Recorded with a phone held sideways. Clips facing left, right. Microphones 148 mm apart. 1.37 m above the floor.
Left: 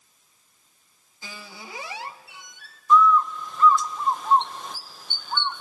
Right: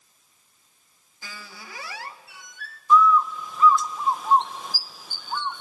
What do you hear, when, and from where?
1.2 s a squeak: 20° left (ahead or behind), 0.7 m
2.9 s a bird: 5° right (ahead or behind), 0.6 m